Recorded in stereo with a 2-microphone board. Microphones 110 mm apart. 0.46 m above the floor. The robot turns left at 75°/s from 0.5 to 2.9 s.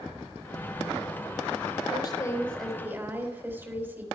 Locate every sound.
1.9 s a woman speaking: 55° left, 3 m; by 4.0 s 20° right, 3 m